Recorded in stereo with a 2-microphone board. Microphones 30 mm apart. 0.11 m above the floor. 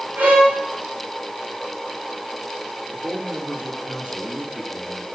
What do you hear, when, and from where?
0.2 s a violin: 75° right (ahead or behind), 6.5 m
2.9 s a man speaking: 60° right (ahead or behind), 4 m